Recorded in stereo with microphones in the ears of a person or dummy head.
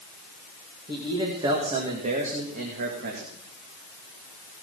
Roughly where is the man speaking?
Centre.